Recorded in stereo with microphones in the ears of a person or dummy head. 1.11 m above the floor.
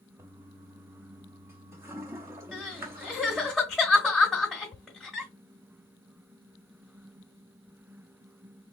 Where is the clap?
I don't hear a clap.